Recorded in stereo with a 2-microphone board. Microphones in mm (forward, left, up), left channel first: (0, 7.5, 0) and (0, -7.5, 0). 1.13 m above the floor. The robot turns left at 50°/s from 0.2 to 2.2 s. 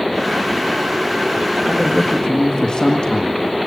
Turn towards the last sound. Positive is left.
turn(degrees=55)  # may be behind; listen again after turning